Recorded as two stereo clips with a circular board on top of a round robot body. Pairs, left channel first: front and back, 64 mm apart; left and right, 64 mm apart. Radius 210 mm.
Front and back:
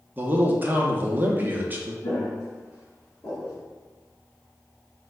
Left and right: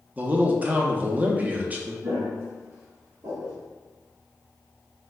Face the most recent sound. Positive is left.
turn(degrees=-60)